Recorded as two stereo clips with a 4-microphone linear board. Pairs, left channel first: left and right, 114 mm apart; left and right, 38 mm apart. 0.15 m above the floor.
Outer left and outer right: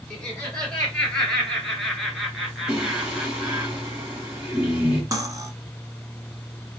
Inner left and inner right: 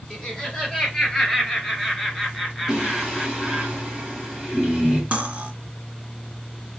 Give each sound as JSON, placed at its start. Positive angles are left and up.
{"t": 0.1, "sound": "laughter", "side_deg": 10, "distance_m": 3.0}
{"t": 2.7, "sound": "singing", "side_deg": -5, "distance_m": 3.0}
{"t": 5.1, "sound": "cutlery clinking", "side_deg": -35, "distance_m": 1.0}